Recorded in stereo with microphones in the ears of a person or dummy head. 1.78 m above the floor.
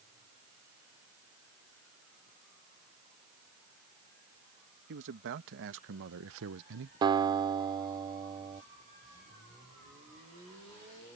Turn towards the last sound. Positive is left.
turn(degrees=-25)  # may be behind; listen again after turning